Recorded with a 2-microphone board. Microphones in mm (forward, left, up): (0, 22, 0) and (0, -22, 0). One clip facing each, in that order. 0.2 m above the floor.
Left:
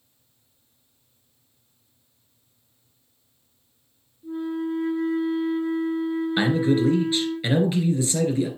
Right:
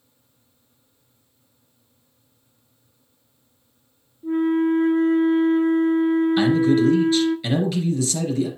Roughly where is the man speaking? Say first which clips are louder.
Even; left.